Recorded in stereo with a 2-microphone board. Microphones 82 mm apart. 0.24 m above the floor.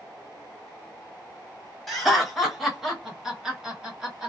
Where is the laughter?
5° left (ahead or behind), 1.4 m; by 4.3 s 15° right (ahead or behind), 1.4 m.